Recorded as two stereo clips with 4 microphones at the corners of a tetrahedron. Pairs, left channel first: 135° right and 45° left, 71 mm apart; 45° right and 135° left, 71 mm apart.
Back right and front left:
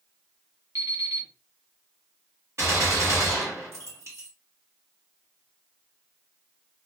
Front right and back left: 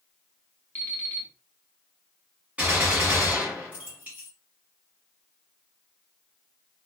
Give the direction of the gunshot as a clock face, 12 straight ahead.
10 o'clock.